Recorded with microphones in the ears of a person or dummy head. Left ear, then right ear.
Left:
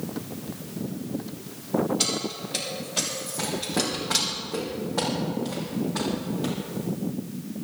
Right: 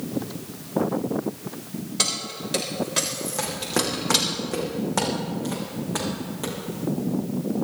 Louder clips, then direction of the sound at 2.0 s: Right 1 dB; 60° right (ahead or behind).